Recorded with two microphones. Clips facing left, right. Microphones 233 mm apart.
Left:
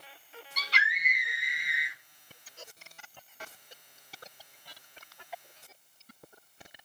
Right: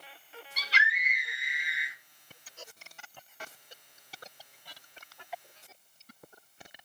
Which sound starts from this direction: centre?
A scream, at 0.6 s.